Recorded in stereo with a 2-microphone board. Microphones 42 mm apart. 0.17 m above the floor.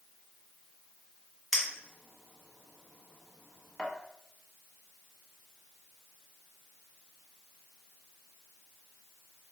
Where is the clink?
5° right (ahead or behind), 0.7 m.